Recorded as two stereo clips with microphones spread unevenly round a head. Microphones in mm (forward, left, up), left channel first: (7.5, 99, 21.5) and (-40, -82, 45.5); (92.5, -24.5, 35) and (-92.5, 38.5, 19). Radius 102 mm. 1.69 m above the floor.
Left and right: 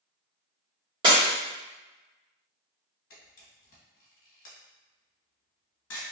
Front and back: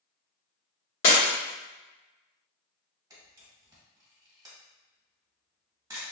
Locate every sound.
1.0 s breaking glass: 50° right, 1.8 m
3.1 s a camera shutter: 85° left, 1.4 m